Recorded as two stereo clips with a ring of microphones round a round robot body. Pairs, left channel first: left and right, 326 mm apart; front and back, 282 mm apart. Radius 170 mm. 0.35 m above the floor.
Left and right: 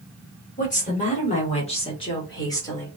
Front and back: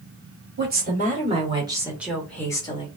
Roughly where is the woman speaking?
Behind left.